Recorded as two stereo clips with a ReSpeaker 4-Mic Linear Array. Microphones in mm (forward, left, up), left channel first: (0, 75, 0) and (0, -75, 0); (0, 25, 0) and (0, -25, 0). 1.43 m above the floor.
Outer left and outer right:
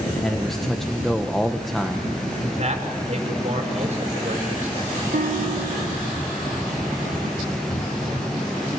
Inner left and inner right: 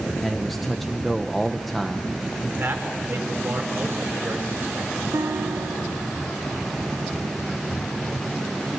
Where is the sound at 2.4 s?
45° right (ahead or behind), 5.5 m.